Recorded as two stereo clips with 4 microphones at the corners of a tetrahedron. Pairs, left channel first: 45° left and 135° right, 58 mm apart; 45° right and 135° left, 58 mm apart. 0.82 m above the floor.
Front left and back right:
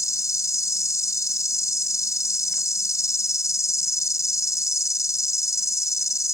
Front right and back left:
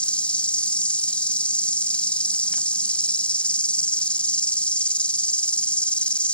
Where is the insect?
25° left.